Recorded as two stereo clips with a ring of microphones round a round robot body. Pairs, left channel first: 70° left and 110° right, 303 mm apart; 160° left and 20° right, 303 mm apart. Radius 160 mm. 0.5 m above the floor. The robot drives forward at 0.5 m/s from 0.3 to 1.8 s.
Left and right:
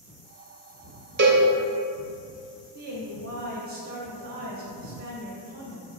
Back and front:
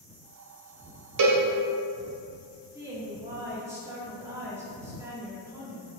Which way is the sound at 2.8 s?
95° right.